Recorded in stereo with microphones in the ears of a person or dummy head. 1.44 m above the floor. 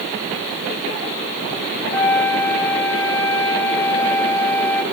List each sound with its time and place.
1.9 s a flute: 15° left (ahead or behind), 1.1 m